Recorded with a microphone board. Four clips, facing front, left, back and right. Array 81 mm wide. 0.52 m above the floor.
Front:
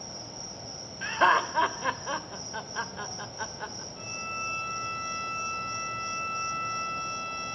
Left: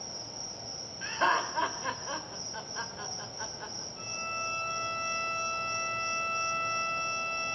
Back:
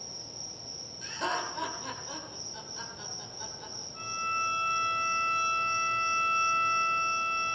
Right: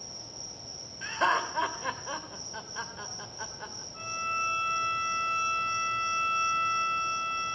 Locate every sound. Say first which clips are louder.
0.0 s an insect: left 3 dB, front 6 dB; 30° left, 2 m
1.0 s laughter: right 1 dB, front 10 dB; 5° right, 1.5 m
3.9 s a violin: right 6 dB, back 7 dB; 110° right, 4.5 m